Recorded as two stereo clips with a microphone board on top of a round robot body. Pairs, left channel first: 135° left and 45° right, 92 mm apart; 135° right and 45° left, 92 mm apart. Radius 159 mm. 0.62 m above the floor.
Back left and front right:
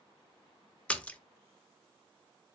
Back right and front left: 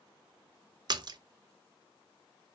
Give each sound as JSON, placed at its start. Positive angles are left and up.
{"t": 0.9, "sound": "a splash", "azimuth_deg": 60, "distance_m": 0.6}